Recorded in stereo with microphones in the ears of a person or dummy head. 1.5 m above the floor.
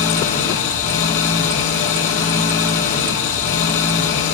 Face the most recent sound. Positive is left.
turn(degrees=65)  # may be behind; listen again after turning